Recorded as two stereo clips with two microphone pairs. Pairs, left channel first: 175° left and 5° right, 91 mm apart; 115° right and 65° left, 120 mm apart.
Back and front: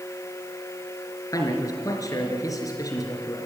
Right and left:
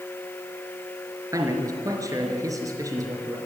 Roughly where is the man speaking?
Behind left.